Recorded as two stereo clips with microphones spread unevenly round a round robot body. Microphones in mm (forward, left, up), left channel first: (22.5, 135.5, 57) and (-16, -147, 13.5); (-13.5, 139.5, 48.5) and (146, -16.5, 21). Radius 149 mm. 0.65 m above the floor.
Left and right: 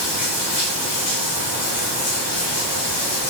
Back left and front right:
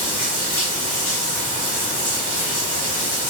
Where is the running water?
65° left, 2.0 m.